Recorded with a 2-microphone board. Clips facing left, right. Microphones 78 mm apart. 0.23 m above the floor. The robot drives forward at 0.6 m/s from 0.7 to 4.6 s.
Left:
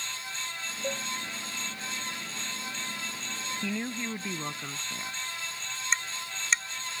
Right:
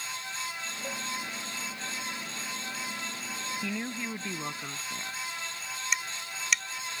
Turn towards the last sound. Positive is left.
turn(degrees=30)  # may be behind; listen again after turning